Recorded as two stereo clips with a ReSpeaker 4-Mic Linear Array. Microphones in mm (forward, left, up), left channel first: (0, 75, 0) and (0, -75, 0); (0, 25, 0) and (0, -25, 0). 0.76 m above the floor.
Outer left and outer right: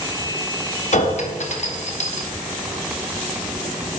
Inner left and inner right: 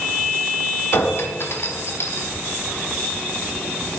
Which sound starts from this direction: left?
A clink, at 0.9 s.